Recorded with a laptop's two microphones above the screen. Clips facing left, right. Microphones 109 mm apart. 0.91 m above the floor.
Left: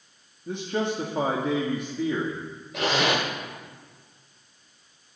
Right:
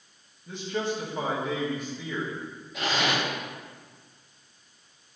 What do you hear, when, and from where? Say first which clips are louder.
0.5 s a man speaking: left 3 dB; 55° left (ahead or behind), 1.5 m
2.7 s a zipper: left 3 dB; 85° left, 3 m